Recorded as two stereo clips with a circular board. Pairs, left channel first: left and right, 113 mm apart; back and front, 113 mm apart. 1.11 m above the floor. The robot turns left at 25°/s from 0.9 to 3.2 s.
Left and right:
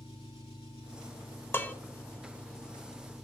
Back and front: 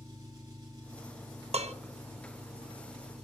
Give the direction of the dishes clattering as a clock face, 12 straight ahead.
11 o'clock.